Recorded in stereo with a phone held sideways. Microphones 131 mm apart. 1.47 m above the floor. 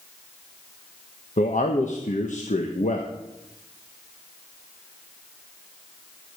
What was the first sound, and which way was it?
A man speaking, 75° left (ahead or behind).